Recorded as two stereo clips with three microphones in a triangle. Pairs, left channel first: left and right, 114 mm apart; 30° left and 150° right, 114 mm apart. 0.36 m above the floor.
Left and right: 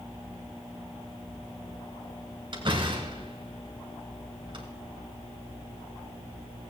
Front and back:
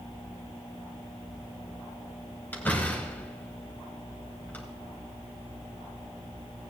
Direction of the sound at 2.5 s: 45° right.